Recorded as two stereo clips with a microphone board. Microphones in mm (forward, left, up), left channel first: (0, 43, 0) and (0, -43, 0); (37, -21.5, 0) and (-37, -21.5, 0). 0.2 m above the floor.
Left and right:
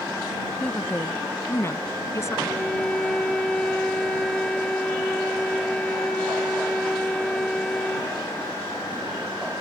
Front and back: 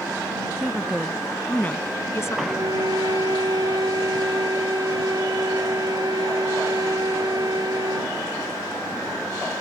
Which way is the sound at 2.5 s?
170° left.